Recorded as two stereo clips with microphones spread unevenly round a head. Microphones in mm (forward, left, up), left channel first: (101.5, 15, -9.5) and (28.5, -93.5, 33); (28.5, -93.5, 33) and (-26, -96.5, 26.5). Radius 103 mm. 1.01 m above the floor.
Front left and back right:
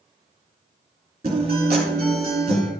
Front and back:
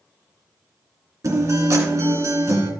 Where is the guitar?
170° left, 2.5 m.